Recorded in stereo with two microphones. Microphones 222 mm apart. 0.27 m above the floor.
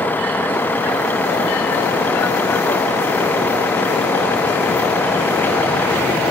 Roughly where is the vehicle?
Centre.